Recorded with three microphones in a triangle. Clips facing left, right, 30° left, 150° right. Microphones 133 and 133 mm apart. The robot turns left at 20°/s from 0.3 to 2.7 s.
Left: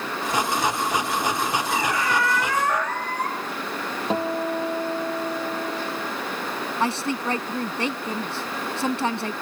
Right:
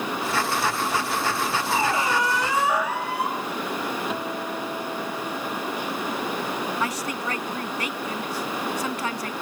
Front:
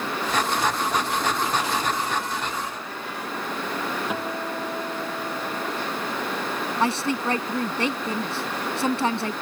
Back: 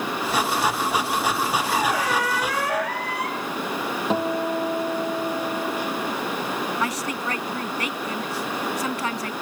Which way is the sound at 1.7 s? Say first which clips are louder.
Right 3 dB, back 3 dB; 150° right.